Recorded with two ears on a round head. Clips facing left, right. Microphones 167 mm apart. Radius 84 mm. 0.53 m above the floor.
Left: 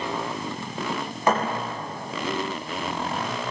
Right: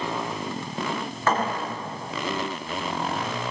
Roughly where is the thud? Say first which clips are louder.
Left 2 dB; centre.